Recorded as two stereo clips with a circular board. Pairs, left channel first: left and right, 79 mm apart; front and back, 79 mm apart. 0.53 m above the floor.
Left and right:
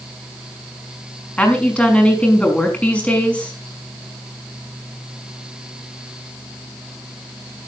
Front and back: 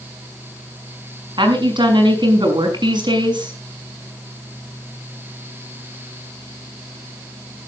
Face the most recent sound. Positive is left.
turn(degrees=165)